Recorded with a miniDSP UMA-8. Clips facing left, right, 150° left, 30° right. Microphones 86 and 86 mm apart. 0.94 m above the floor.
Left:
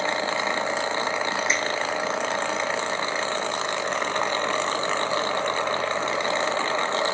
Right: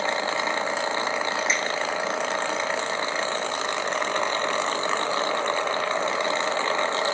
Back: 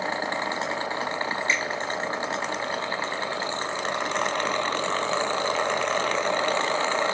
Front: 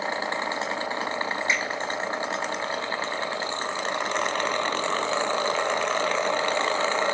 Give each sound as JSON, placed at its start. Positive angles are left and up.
{"t": 1.5, "sound": "a finger snap", "azimuth_deg": 45, "distance_m": 4.5}